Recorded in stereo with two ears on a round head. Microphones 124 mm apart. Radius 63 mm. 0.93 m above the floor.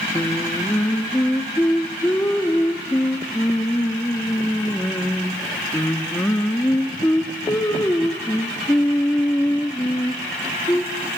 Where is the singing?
15° left (ahead or behind), 1.3 m.